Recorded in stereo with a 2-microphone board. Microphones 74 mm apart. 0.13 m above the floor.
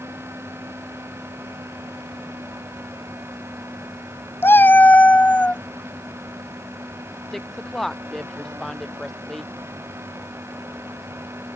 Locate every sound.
4.4 s a cat meowing: 30° left (ahead or behind); by 5.6 s 15° left (ahead or behind)
7.3 s a woman speaking: 5° left (ahead or behind)